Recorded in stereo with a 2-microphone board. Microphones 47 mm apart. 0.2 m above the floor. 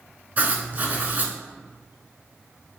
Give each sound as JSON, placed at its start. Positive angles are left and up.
{"t": 0.4, "sound": "writing", "side_deg": -35, "distance_m": 0.5}